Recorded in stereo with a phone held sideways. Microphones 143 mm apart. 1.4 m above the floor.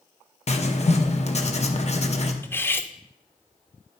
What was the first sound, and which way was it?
Writing, 50° left (ahead or behind).